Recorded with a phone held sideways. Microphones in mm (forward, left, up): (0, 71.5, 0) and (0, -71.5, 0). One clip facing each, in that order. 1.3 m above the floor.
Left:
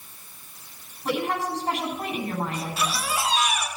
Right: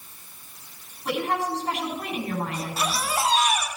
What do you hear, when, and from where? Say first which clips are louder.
1.1 s a woman speaking: even; 35° left (ahead or behind), 8 m
2.5 s a baby crying: even; 35° right (ahead or behind), 3.5 m